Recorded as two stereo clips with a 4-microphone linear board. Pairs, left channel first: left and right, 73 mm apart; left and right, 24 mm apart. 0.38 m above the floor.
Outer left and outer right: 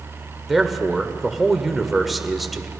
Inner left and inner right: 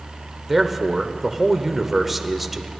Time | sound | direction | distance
0.5 | a man speaking | centre (ahead or behind) | 0.8 m